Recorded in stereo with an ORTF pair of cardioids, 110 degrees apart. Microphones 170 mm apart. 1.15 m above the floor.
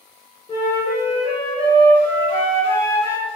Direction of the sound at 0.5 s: 35° left.